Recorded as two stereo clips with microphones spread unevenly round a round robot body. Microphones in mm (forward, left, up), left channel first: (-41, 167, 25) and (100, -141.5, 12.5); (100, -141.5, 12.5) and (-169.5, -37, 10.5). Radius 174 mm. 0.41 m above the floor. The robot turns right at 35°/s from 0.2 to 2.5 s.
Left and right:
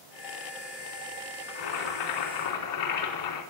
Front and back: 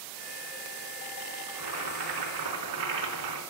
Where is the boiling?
115° left, 4 m; by 3.4 s 150° left, 4 m.